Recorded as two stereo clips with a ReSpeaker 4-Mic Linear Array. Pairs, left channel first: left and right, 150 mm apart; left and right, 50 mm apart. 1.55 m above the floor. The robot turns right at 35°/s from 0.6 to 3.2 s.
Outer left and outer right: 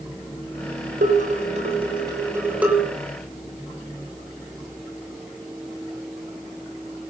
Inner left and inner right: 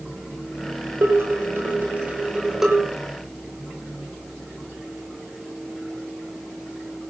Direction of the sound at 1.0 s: 65° right.